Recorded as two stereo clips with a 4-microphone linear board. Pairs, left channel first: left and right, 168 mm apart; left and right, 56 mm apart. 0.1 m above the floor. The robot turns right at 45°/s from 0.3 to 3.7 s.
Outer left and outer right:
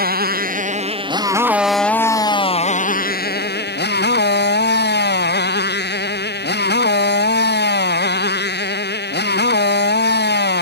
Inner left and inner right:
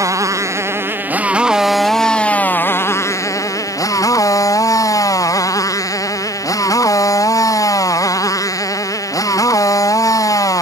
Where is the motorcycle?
65° right; by 10.6 s 90° left.